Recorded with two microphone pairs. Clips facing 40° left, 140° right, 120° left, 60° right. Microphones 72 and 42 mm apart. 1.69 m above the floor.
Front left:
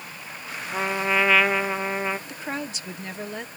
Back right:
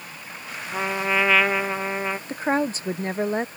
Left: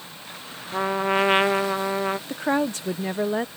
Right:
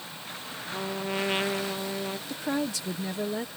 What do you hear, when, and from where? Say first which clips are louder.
0.7 s a trumpet: even, left 10 dB; 125° left
2.3 s a woman speaking: back right 9 dB, left 4 dB; 170° left